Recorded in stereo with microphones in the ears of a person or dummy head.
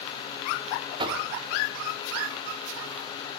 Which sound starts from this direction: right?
Knocking, at 1.0 s.